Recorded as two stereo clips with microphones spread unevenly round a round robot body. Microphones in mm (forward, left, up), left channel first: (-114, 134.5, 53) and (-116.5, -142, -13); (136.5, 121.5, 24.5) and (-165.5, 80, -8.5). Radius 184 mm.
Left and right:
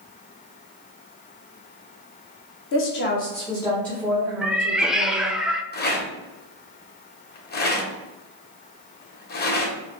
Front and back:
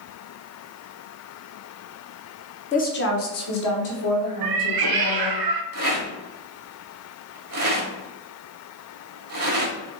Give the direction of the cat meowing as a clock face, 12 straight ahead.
6 o'clock.